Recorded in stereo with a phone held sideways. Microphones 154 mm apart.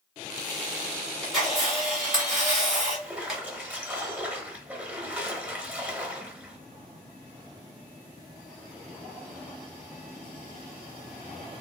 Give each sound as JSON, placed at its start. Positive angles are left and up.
{"t": 1.2, "sound": "a camera shutter", "side_deg": 0, "distance_m": 1.6}
{"t": 3.0, "sound": "a splash", "side_deg": -10, "distance_m": 0.9}